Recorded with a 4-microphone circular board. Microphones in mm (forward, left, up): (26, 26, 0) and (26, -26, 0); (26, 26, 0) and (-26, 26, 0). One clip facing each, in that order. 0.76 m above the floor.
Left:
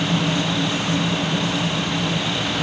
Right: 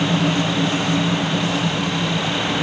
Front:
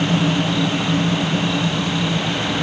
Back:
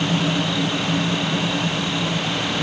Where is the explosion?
I don't hear an explosion.